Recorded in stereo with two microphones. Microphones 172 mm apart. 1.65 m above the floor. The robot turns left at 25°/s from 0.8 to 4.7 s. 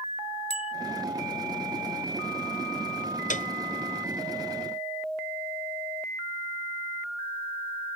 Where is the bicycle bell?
40° left (ahead or behind).